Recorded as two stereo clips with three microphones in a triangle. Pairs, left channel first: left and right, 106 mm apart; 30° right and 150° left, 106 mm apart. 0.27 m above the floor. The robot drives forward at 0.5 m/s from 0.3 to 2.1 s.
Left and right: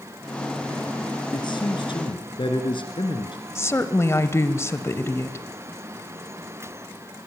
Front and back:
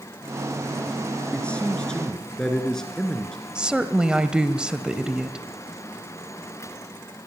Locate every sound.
1.3 s a man speaking: 50° left, 3.5 m; by 3.5 s 55° left, 3 m
3.5 s a woman speaking: 80° left, 1.2 m